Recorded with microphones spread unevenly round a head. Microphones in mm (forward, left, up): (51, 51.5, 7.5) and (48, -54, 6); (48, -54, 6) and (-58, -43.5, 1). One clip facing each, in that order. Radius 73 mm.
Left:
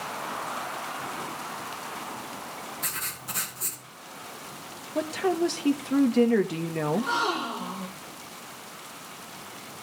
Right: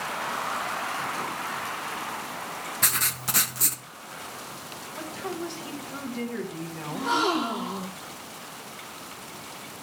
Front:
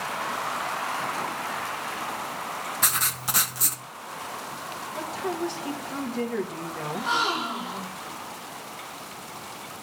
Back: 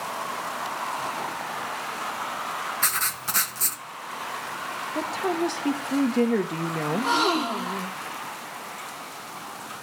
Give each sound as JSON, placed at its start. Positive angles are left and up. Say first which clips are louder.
{"t": 2.8, "sound": "writing", "louder": "right 6 dB, even", "azimuth_deg": -85, "distance_m": 1.5}
{"t": 5.0, "sound": "a woman speaking", "louder": "left 9 dB, back 4 dB", "azimuth_deg": 125, "distance_m": 1.1}
{"t": 6.9, "sound": "a gasp", "louder": "right 4 dB, back 3 dB", "azimuth_deg": -150, "distance_m": 1.7}